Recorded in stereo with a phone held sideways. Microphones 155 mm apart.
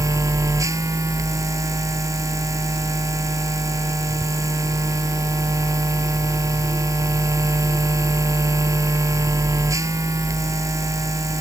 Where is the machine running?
20° right (ahead or behind).